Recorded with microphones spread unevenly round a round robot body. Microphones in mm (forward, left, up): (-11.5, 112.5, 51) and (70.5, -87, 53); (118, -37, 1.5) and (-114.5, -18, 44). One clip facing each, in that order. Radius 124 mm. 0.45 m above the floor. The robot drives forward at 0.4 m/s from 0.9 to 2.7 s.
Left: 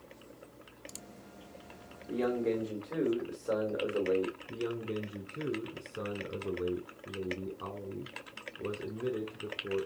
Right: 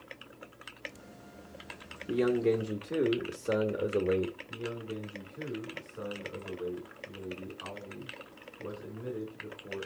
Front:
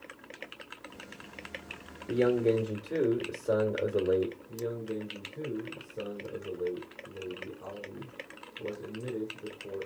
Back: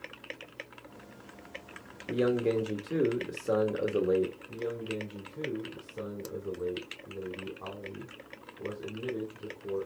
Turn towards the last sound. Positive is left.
turn(degrees=100)